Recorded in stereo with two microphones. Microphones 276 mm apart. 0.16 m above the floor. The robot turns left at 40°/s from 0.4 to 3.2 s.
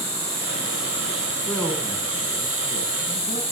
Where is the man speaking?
175° left, 1.7 m; by 3.4 s 110° left, 1.7 m.